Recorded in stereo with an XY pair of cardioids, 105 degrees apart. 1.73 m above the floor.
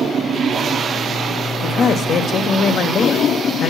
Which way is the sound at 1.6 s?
60° left.